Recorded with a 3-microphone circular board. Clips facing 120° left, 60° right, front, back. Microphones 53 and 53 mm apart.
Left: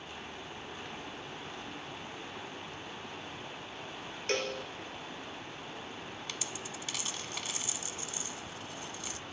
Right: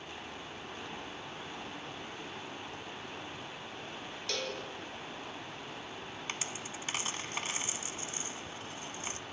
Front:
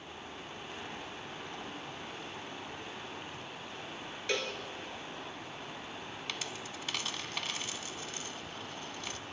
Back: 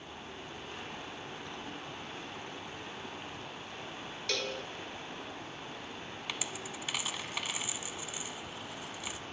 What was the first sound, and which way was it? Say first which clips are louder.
A cowbell: left 5 dB, front 1 dB; 70° left.